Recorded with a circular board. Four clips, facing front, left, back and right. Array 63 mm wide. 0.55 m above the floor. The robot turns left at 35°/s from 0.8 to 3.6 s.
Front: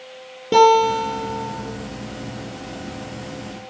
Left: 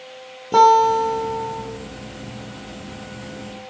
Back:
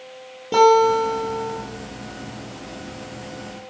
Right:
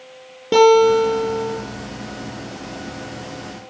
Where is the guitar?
65° right, 3 m; by 1.6 s 95° right, 3 m.